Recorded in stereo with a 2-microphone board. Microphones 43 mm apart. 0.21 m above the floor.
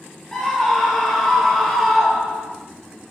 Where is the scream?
10° left (ahead or behind), 3.5 m; by 2.5 s centre (ahead or behind), 3 m.